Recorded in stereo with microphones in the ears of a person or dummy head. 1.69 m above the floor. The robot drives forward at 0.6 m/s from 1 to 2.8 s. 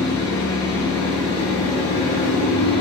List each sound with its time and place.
0.0 s an engine running: 75° left (ahead or behind), 1.6 m; by 2.8 s 60° left (ahead or behind), 1.7 m